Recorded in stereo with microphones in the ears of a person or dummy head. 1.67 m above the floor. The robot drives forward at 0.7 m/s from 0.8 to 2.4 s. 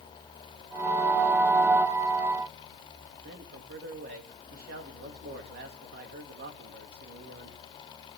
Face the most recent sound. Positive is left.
turn(degrees=-60)  # may be behind; listen again after turning